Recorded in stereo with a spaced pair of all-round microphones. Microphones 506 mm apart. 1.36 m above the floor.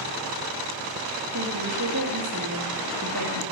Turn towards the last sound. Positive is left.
turn(degrees=-40)  # may be behind; listen again after turning